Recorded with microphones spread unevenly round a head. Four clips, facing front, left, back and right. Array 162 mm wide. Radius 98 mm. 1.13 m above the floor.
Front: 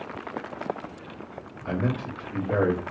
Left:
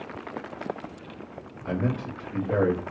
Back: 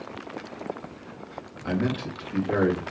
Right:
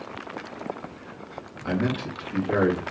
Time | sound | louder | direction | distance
1.6 | a man speaking | right 2 dB, back 1 dB | 160° right | 1.3 m